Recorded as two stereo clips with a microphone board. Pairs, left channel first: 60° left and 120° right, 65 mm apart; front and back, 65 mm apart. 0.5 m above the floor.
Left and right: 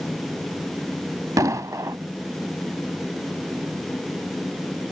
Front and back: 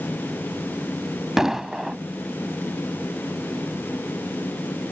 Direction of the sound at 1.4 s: 100° right.